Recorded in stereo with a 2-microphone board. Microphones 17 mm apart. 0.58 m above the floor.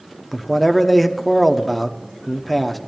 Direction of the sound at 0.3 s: 10° left (ahead or behind).